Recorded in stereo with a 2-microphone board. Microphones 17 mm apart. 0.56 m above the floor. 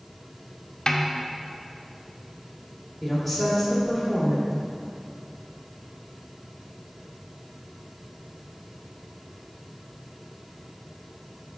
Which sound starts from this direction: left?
A snare drum, at 0.9 s.